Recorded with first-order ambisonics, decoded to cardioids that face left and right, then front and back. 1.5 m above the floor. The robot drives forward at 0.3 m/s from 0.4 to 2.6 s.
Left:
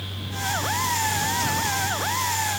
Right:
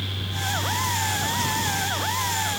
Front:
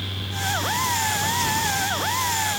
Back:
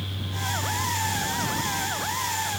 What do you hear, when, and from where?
Only background noise.